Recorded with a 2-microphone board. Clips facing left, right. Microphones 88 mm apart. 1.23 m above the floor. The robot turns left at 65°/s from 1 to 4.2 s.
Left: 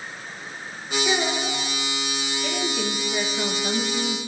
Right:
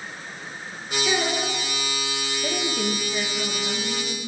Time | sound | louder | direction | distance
1.1 | a child speaking | even | 10° left | 2.5 m
2.4 | a woman speaking | right 1 dB | 160° right | 1.6 m